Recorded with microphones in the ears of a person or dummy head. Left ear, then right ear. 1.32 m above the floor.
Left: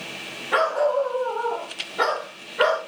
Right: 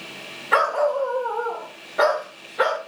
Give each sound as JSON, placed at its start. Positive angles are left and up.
{"t": 0.5, "sound": "a dog barking", "side_deg": -65, "distance_m": 2.0}